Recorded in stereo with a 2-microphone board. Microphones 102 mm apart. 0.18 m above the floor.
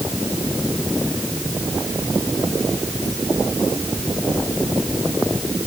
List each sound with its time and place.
Only background noise.